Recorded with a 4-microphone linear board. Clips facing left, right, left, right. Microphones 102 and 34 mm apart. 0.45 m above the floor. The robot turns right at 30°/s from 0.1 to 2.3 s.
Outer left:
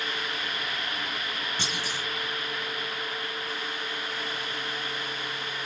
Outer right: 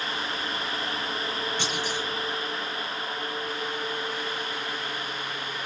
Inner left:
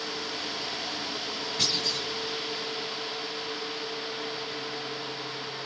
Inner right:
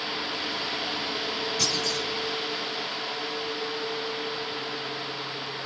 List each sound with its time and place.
1.6 s a clunk: 40° left (ahead or behind), 1.7 m; by 2.1 s 35° left (ahead or behind), 1.7 m